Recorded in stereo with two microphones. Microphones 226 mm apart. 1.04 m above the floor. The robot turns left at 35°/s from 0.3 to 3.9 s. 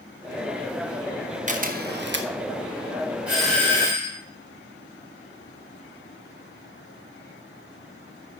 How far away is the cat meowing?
No cat meowing in this recording.